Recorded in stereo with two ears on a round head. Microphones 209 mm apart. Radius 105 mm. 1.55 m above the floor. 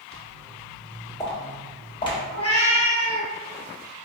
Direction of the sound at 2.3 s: 30° left (ahead or behind).